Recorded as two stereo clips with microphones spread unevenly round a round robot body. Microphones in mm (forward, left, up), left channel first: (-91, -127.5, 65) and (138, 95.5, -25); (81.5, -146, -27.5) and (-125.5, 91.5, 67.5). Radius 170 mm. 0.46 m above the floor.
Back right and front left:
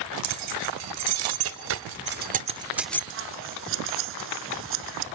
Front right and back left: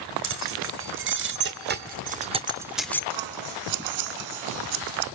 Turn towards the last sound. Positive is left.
turn(degrees=105)